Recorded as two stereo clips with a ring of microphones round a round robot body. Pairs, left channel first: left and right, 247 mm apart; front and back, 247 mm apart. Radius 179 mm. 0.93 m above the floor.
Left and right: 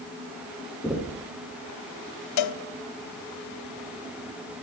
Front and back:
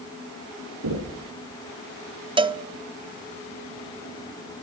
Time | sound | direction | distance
0.8 | knocking | 175° left | 9.5 m
2.4 | a cowbell | 110° left | 0.9 m